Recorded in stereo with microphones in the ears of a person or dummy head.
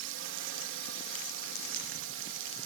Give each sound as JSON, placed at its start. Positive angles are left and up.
{"t": 0.0, "sound": "a drone", "side_deg": -60}